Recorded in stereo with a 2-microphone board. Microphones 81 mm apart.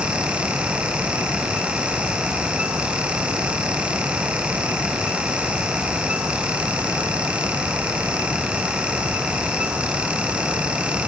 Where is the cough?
I don't hear a cough.